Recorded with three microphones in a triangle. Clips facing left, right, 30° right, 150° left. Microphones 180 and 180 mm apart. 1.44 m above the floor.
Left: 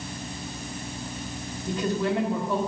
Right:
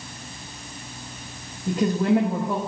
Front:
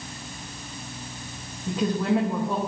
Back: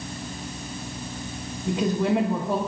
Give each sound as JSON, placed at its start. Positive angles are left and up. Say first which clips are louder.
{"t": 1.7, "sound": "a woman speaking", "louder": "right 5 dB, back 1 dB", "azimuth_deg": -140, "distance_m": 1.4}